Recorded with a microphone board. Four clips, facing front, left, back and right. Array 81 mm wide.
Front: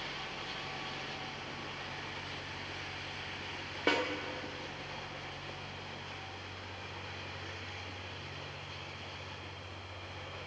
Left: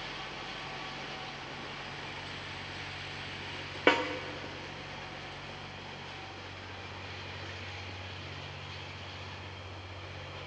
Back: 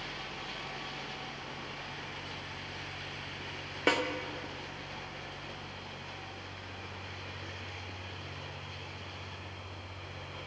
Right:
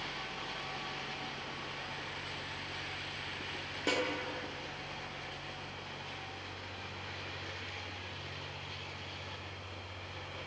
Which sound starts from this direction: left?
A snare drum, at 3.9 s.